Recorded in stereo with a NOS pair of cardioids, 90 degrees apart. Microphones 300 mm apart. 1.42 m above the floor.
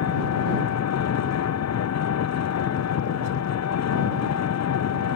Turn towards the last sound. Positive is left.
turn(degrees=65)